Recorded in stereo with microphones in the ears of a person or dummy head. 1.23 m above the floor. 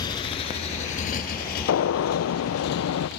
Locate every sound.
0.0 s a motorcycle: 20° left (ahead or behind); by 3.2 s 60° left (ahead or behind)
1.7 s a gunshot: 65° left (ahead or behind)